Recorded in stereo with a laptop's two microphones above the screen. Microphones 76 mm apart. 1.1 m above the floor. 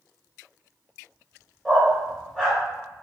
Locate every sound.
1.6 s a dog barking: 10° left (ahead or behind), 1.0 m